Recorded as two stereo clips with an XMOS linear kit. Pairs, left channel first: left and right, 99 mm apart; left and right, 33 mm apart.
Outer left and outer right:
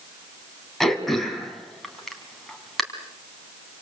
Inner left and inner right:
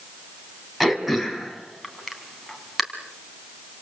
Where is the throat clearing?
Centre (ahead or behind), 3.5 m.